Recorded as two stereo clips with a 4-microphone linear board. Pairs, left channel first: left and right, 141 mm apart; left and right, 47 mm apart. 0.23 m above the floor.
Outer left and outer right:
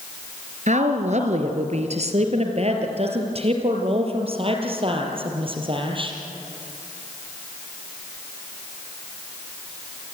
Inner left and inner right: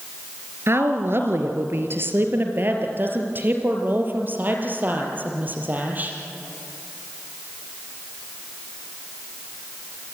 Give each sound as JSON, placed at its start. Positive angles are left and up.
{"t": 0.7, "sound": "a woman speaking", "side_deg": -60, "distance_m": 3.0}